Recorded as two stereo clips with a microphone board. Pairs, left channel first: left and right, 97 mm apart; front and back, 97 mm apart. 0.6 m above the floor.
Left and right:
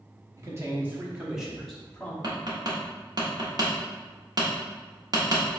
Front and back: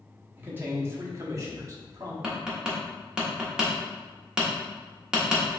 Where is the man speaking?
125° right, 1.1 m; by 2.1 s 160° left, 1.2 m.